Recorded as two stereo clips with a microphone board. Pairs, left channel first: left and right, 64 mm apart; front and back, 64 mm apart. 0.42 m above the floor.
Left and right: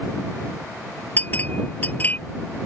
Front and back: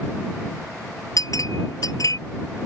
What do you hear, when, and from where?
1.2 s a clink: 30° left